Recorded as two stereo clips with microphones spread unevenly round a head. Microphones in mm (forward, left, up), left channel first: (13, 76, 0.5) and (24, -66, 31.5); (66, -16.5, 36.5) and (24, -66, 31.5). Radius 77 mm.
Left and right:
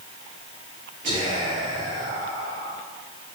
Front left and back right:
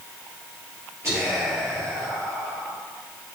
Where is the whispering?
90° right, 2.5 m.